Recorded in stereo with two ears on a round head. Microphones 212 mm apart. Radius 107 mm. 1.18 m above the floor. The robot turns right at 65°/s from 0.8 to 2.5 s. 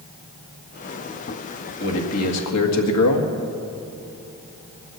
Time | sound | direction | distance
1.8 | a man speaking | 45° left | 1.9 m